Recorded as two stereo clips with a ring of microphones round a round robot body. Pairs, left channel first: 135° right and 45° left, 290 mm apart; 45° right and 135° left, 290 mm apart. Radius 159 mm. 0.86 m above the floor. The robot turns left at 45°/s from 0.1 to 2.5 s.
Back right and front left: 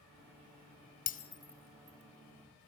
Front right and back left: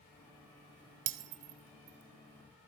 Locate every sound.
1.1 s breaking glass: 165° left, 1.6 m; by 2.7 s 100° left, 1.6 m